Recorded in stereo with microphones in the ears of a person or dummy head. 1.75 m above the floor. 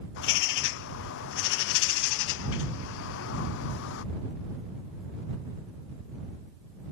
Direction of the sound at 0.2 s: 65° left (ahead or behind).